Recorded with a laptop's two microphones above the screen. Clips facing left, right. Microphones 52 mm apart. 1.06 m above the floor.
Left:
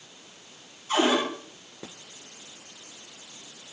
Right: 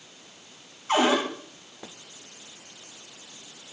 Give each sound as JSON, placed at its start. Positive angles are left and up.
{"t": 0.9, "sound": "a cupboard door", "side_deg": -65, "distance_m": 3.5}